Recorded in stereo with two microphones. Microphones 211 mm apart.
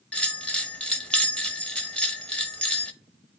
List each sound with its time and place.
0.1 s a bell: 5° left (ahead or behind), 0.9 m